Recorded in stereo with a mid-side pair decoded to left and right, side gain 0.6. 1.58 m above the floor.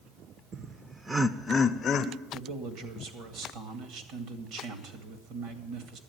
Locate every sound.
0.5 s laughter: 40° right, 1.1 m; by 2.1 s 45° left, 1.1 m
2.3 s a man speaking: 65° right, 2 m